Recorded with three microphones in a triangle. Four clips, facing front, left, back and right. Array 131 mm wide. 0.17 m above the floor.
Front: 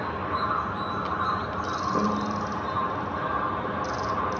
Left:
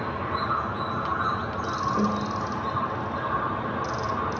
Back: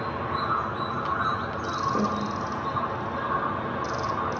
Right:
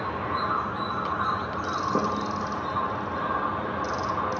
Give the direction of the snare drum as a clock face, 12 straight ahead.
3 o'clock.